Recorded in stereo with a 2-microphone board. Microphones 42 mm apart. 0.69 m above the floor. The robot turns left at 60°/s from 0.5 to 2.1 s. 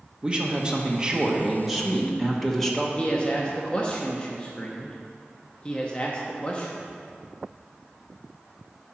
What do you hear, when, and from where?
0.2 s a man speaking: 25° right (ahead or behind), 1.1 m; by 2.9 s 5° left (ahead or behind), 1.1 m
3.0 s a man speaking: 25° left (ahead or behind), 0.8 m